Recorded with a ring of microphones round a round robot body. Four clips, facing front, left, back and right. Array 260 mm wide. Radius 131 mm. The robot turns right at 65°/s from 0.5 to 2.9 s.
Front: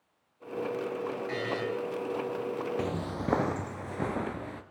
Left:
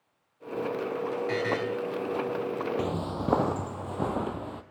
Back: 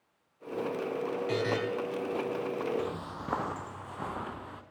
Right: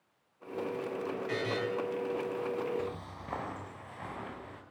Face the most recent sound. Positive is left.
turn(degrees=65)